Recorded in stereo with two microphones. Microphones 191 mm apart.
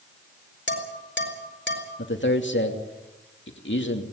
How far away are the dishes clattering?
About 4 m.